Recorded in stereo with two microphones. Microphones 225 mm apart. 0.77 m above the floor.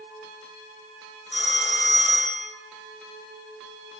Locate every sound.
1.3 s a phone ringing: 75° right (ahead or behind), 1.8 m